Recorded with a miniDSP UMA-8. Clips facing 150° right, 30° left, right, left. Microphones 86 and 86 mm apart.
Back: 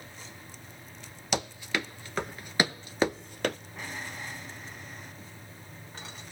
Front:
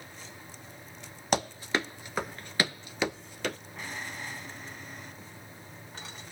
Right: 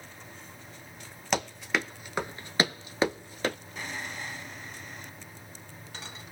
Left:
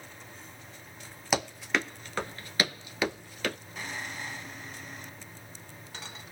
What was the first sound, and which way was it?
Running footsteps, 5° left.